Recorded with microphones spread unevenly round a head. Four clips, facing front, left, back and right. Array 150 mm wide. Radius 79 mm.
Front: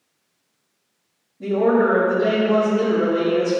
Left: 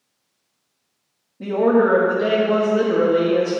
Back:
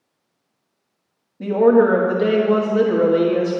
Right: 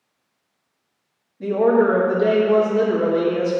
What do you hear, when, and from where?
1.4 s a woman speaking: 155° left, 1.2 m